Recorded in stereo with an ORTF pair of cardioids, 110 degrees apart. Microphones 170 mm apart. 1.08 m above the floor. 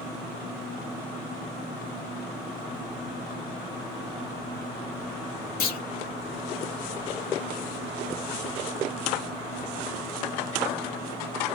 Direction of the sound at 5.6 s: 65° left.